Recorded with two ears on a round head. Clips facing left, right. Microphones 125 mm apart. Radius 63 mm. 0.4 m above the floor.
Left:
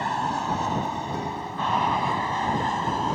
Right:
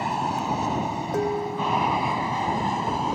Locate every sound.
0.0 s an aircraft: 10° right (ahead or behind)
1.1 s dishes clattering: 55° right (ahead or behind)